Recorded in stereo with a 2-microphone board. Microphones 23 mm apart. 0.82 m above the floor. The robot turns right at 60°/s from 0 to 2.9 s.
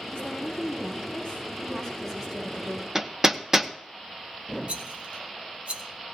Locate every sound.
0.1 s a woman speaking: 55° left, 7 m; by 2.9 s 140° right, 7 m
3.0 s hammering: 15° right (ahead or behind), 0.8 m
4.7 s a rattle: 70° right (ahead or behind), 1.8 m